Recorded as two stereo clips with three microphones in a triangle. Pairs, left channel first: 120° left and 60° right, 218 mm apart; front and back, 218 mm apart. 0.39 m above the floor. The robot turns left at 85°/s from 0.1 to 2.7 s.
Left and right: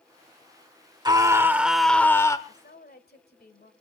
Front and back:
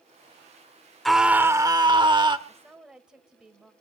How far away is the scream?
About 0.9 m.